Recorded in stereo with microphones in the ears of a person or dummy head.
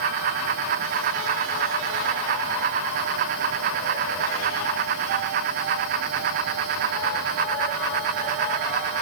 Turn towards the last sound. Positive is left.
No sound to turn to.